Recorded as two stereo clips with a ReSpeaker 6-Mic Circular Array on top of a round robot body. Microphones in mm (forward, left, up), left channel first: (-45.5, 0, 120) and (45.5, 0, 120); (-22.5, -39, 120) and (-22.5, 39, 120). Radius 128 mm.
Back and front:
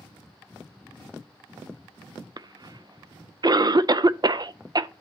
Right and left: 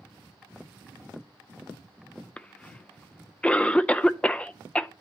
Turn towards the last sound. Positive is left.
turn(degrees=-20)